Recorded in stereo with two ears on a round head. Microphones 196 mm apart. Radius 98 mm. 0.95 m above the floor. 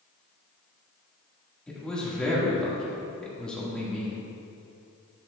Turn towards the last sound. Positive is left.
turn(degrees=5)  # may be behind; listen again after turning